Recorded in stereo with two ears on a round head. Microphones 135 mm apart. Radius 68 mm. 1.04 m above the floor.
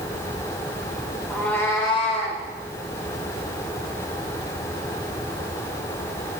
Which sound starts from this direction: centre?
A cat meowing, at 1.3 s.